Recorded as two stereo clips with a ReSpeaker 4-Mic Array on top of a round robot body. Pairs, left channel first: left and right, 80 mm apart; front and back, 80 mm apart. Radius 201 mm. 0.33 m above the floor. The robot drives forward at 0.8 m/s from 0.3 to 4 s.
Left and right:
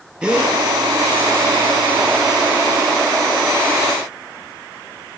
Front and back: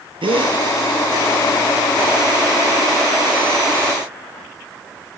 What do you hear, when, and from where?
0.2 s a gasp: 170° right, 2 m